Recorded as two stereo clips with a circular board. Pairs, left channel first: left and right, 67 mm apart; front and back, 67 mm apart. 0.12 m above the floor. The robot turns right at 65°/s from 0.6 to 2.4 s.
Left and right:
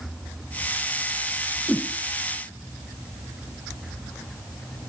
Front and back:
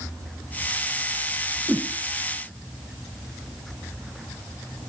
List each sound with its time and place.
1.7 s a whoosh: 140° left, 0.6 m; by 1.9 s 155° left, 0.6 m